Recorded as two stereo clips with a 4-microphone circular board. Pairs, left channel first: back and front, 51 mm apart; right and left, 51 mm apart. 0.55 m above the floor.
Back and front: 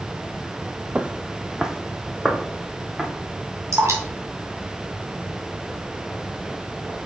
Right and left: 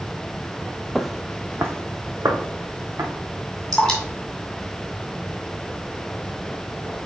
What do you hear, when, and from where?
0.9 s footsteps: 15° right, 0.5 m; by 3.1 s 85° left, 2.5 m
3.7 s dripping: 10° right, 2.5 m